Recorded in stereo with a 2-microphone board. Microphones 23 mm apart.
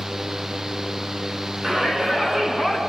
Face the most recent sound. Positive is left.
turn(degrees=-20)  # may be behind; listen again after turning